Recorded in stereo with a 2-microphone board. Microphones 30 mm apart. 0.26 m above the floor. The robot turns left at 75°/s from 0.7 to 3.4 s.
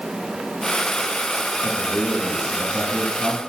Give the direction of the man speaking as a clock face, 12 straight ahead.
8 o'clock.